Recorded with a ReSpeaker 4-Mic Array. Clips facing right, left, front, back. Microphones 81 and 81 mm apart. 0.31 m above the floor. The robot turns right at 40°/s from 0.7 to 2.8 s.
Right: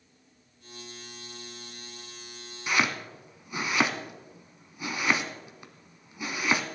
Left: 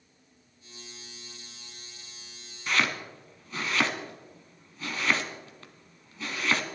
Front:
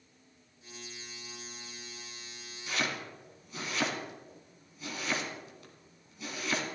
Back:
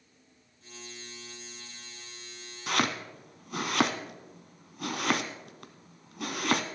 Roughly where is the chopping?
Behind.